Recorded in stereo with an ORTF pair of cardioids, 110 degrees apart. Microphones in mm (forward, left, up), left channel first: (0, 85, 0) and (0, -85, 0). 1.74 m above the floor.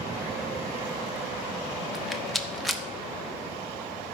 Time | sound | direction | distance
1.9 | a rattle | straight ahead | 1.1 m